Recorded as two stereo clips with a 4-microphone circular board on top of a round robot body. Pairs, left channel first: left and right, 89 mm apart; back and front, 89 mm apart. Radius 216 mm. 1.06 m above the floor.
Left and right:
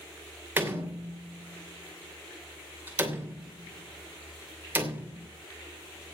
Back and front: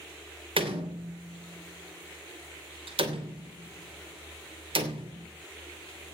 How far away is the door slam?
About 3 m.